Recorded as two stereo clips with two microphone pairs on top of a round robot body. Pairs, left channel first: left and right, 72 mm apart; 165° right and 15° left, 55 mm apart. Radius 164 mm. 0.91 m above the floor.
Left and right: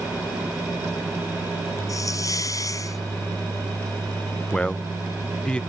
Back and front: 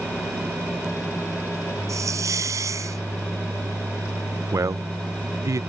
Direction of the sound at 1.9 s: 45° left.